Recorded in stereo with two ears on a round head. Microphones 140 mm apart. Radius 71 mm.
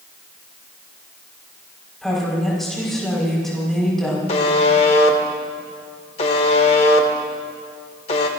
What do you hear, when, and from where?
2.0 s a woman speaking: centre (ahead or behind), 4.5 m
4.3 s a buzzer: 40° left (ahead or behind), 1.5 m